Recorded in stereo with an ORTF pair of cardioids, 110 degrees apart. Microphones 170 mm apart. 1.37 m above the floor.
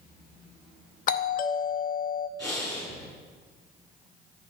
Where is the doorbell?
55° left, 0.6 m.